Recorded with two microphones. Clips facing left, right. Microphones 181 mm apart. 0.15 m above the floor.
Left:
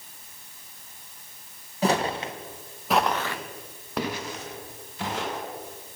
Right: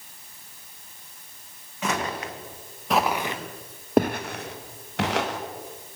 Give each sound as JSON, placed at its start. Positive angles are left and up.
{"t": 1.8, "sound": "footsteps", "side_deg": 35, "distance_m": 2.0}